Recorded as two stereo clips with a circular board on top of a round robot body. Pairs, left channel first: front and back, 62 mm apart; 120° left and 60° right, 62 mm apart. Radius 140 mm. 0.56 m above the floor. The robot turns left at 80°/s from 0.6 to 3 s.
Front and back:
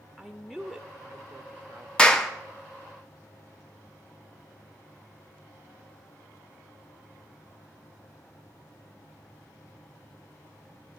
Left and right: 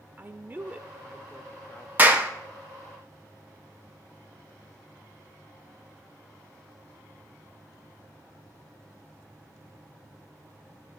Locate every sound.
0.2 s a woman speaking: 85° right, 0.6 m; by 1.9 s 170° left, 0.6 m
2.0 s a clap: 55° right, 1.0 m; by 2.3 s 80° right, 1.0 m